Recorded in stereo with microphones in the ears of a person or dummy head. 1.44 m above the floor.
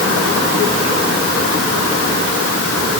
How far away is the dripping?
No dripping in this recording.